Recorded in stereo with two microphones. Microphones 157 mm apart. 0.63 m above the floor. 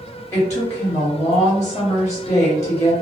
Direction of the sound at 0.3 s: 20° left (ahead or behind).